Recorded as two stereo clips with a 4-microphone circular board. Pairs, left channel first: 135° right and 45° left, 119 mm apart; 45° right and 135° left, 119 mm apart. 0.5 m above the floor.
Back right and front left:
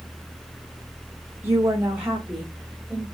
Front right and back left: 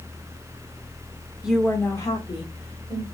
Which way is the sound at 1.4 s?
70° left.